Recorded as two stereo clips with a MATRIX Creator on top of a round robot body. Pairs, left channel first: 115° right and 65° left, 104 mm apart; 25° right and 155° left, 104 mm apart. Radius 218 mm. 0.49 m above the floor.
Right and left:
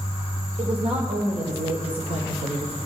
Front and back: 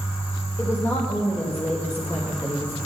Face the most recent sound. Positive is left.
turn(degrees=50)